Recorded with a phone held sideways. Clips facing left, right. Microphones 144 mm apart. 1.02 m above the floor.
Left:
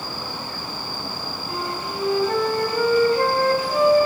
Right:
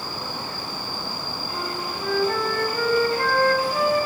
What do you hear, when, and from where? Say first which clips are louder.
1.5 s a flute: left 2 dB; 35° left (ahead or behind), 6 m